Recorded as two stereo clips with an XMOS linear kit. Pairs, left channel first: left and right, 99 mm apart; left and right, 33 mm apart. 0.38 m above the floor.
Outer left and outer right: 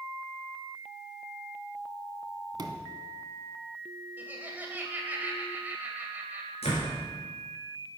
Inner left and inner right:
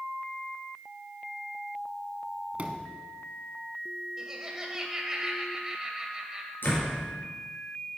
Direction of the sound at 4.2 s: 15° right (ahead or behind).